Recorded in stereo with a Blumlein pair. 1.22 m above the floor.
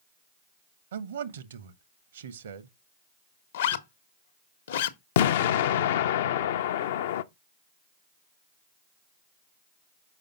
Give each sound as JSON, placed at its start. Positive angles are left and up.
{"t": 0.9, "sound": "a man speaking", "azimuth_deg": -65, "distance_m": 1.0}
{"t": 3.5, "sound": "a zipper", "azimuth_deg": 60, "distance_m": 0.9}
{"t": 5.2, "sound": "an explosion", "azimuth_deg": 55, "distance_m": 0.6}